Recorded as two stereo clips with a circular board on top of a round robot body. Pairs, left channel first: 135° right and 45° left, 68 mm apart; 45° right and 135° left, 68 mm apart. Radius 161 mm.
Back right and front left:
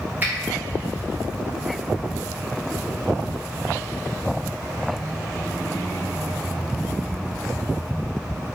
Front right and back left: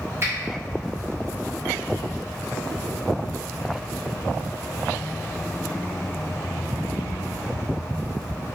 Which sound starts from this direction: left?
A finger snap, at 0.2 s.